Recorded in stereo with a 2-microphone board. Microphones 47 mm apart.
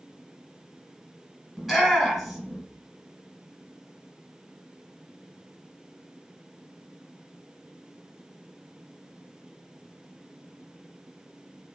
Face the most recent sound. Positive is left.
turn(degrees=-5)  # may be behind; listen again after turning